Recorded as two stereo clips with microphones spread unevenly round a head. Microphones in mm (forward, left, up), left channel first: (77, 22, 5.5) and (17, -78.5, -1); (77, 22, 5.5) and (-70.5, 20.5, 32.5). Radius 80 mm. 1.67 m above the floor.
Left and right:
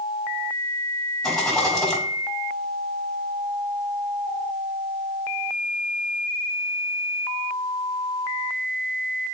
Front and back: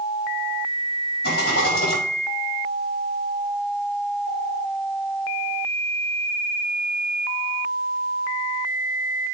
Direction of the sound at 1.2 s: 25° right.